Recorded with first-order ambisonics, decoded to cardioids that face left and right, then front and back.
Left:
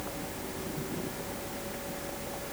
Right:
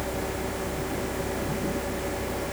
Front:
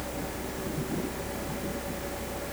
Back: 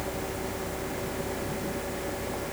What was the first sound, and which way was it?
Only background noise.